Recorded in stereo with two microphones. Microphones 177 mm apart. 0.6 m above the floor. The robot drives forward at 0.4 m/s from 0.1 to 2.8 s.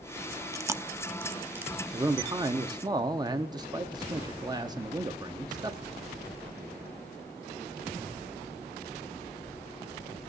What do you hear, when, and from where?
0.5 s chewing: 15° right (ahead or behind), 0.5 m; by 1.7 s 10° right (ahead or behind), 0.8 m
1.9 s a man speaking: 20° right (ahead or behind), 0.8 m